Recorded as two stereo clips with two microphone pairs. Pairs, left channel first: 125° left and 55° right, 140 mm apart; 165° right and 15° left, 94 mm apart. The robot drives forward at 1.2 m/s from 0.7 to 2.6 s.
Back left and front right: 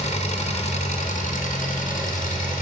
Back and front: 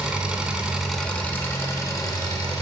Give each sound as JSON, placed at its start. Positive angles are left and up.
{"t": 0.0, "sound": "an engine running", "azimuth_deg": 95, "distance_m": 1.5}